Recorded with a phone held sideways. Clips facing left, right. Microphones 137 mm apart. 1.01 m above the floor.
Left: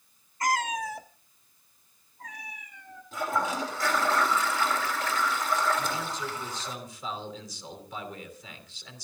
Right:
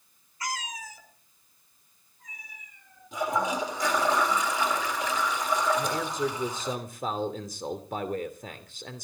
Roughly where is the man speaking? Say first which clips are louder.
Right 4 dB; right.